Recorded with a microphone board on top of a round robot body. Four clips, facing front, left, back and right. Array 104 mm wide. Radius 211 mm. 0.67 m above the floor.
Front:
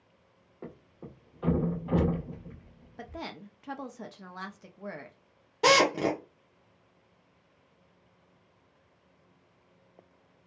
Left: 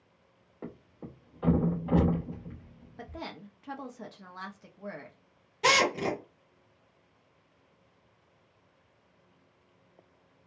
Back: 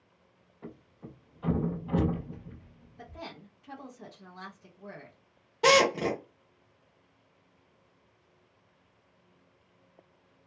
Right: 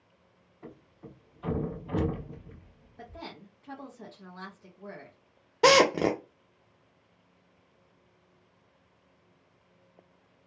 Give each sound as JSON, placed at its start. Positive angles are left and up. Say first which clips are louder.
{"t": 0.6, "sound": "a thud", "louder": "left 4 dB, front 1 dB", "azimuth_deg": 55, "distance_m": 0.5}
{"t": 3.0, "sound": "a woman speaking", "louder": "left 2 dB, front 4 dB", "azimuth_deg": 25, "distance_m": 0.8}
{"t": 5.6, "sound": "a drill", "louder": "right 6 dB, even", "azimuth_deg": -85, "distance_m": 0.5}